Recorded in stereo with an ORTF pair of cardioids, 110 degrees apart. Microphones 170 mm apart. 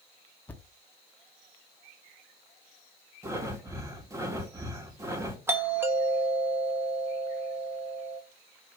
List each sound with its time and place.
0.5 s a thud: 10° left, 1.0 m
3.2 s breathing: 15° right, 1.7 m
5.5 s a doorbell: 15° right, 1.5 m